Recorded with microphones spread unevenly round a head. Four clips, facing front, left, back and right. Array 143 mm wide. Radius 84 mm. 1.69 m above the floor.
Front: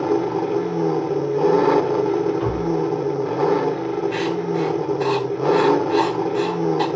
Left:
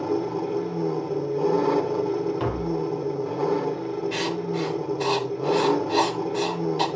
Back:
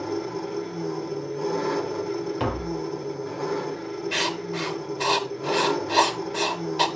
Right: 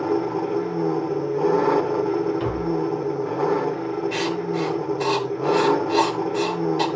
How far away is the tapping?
About 2 m.